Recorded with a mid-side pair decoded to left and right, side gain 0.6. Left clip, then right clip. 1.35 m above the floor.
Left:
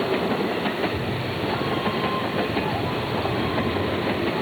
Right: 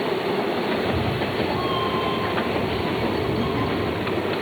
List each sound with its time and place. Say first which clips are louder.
0.8 s a cat meowing: right 2 dB; 45° right, 4 m; by 4.2 s 65° right, 8 m